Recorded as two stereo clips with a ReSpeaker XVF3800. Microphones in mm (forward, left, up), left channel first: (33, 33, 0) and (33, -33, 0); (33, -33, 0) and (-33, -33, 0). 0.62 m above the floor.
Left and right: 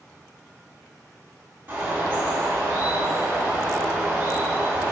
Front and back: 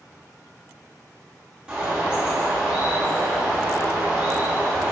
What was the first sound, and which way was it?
A bird, 110° right.